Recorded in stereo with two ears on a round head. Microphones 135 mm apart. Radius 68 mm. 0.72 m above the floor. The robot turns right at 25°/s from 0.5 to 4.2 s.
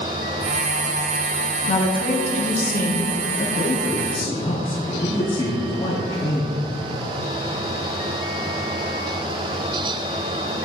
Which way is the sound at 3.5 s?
45° left (ahead or behind).